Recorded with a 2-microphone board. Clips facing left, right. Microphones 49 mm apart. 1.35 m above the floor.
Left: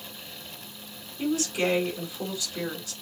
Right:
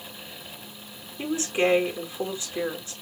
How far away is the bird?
No bird in this recording.